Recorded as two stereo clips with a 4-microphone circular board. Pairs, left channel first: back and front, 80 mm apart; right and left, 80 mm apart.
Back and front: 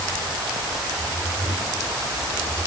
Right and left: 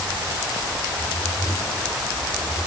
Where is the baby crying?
I don't hear a baby crying.